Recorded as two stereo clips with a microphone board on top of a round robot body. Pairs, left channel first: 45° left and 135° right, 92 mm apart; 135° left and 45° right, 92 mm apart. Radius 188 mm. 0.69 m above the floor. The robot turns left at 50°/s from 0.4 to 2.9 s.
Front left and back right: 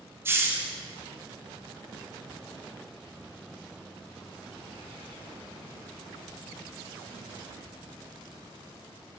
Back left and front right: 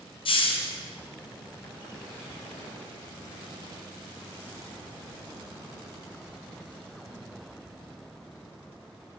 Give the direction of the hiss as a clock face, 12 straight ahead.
7 o'clock.